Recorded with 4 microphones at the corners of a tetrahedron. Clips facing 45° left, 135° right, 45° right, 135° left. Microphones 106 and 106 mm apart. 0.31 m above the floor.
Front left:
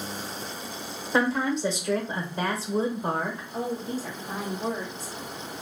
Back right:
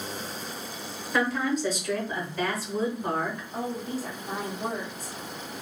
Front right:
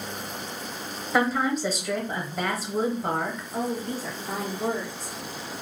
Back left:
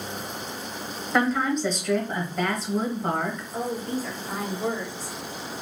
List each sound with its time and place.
1.1 s a woman speaking: 30° left, 0.9 m
3.5 s a woman speaking: 120° right, 1.8 m